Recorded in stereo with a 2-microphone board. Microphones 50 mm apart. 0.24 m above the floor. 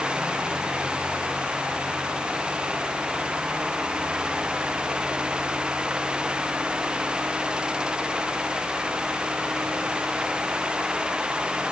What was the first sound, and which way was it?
Only background noise.